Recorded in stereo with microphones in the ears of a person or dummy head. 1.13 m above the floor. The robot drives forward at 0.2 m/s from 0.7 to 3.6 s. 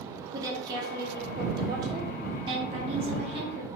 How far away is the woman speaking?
About 0.8 m.